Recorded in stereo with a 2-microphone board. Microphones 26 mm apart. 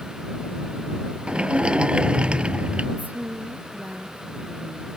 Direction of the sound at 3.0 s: 75° right (ahead or behind).